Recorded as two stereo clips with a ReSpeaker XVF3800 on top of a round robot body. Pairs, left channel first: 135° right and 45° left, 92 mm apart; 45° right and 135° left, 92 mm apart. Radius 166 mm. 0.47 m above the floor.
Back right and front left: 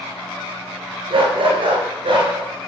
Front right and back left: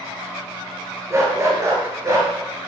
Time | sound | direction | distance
1.1 | a dog barking | 75° left | 4.5 m